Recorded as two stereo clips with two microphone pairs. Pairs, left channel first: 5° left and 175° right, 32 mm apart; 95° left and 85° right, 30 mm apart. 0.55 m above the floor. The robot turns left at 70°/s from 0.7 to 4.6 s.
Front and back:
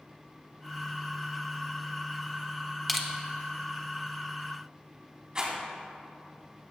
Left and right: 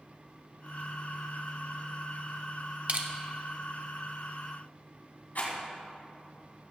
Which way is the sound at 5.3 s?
120° left.